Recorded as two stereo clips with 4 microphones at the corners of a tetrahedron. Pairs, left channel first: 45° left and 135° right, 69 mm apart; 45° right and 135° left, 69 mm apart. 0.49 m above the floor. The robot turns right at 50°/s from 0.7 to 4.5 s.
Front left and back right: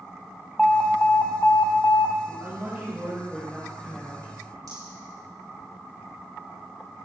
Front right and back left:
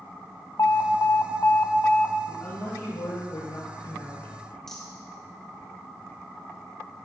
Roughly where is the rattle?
Behind right.